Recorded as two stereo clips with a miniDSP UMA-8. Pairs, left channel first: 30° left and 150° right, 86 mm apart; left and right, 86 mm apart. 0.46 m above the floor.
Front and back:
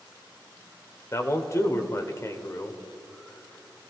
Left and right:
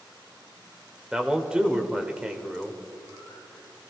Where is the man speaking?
10° right, 1.1 m.